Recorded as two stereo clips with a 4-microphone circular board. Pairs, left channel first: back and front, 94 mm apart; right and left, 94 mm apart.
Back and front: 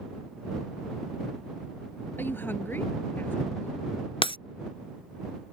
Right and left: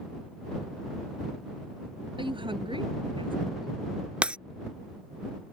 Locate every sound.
2.2 s a woman speaking: 115° left
4.2 s breaking glass: 170° left